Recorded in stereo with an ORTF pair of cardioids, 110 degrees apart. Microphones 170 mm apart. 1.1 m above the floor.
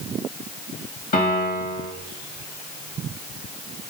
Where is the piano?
60° left, 1.8 m.